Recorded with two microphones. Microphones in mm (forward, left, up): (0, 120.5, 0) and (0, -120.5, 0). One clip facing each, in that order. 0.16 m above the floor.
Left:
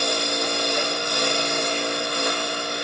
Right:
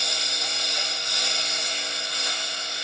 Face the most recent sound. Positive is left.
turn(degrees=65)  # may be behind; listen again after turning